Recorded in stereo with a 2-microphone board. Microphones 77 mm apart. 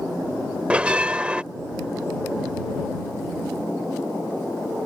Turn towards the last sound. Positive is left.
turn(degrees=-15)  # may be behind; listen again after turning